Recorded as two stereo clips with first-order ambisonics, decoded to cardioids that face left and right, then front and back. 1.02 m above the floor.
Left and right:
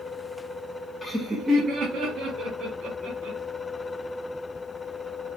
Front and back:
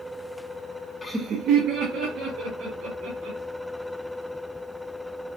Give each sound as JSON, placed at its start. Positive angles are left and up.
{"t": 1.0, "sound": "laughter", "azimuth_deg": 50, "distance_m": 0.6}